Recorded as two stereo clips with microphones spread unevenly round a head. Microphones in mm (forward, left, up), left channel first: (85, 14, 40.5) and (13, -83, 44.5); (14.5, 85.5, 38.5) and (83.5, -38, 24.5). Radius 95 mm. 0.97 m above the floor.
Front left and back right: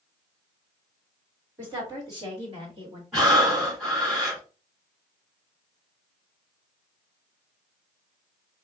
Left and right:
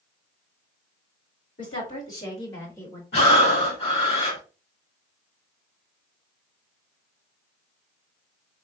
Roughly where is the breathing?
Behind left.